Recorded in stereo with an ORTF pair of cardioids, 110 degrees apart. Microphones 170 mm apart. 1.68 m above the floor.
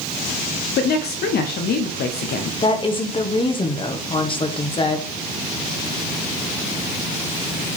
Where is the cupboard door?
No cupboard door in this recording.